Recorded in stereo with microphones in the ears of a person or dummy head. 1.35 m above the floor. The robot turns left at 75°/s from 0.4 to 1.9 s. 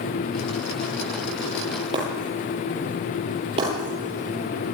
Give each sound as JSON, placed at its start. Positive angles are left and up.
{"t": 1.9, "sound": "breaking glass", "side_deg": -30, "distance_m": 10.0}